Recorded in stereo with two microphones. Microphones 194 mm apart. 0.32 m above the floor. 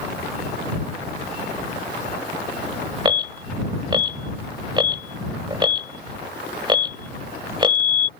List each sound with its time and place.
3.0 s an alarm: 25° right (ahead or behind)